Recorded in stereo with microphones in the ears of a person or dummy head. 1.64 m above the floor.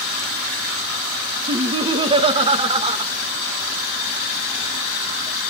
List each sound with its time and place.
1.5 s laughter: 30° right (ahead or behind), 1.1 m